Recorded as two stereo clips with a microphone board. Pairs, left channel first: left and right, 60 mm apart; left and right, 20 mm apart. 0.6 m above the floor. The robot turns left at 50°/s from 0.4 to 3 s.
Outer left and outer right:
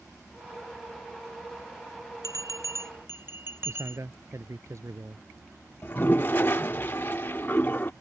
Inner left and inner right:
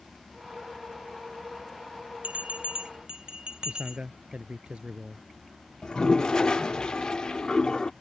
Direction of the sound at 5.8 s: 35° left (ahead or behind).